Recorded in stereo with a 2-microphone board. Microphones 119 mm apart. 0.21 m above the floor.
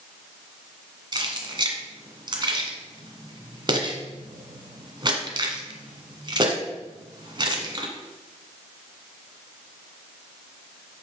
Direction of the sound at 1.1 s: 40° right (ahead or behind).